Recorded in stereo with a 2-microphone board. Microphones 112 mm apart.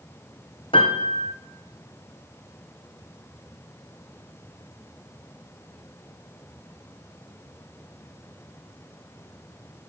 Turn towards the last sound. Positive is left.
turn(degrees=50)  # may be behind; listen again after turning